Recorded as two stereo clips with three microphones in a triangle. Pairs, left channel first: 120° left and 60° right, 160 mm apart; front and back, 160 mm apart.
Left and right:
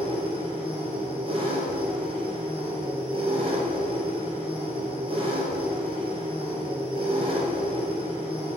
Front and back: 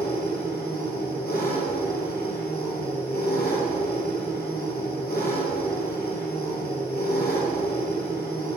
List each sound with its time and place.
0.0 s an engine running: 5° right, 3 m